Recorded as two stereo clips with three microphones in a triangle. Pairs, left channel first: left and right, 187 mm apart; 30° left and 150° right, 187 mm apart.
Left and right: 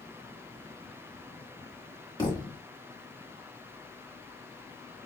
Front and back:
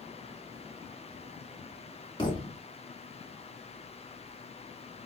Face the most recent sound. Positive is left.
turn(degrees=60)